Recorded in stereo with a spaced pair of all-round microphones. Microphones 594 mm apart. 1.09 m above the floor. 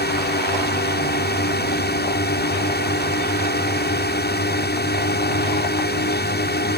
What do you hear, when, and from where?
0.0 s a drone: 15° left (ahead or behind)